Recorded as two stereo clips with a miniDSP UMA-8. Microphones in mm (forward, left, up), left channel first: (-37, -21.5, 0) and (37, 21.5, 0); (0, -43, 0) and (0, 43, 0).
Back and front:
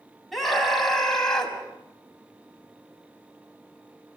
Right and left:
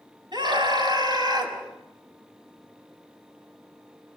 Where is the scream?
120° left, 6.5 m; by 1.6 s 130° left, 5.5 m.